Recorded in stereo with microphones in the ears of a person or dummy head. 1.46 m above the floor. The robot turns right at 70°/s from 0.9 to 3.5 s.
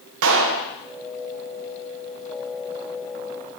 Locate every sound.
0.2 s a clap: 65° right (ahead or behind), 0.8 m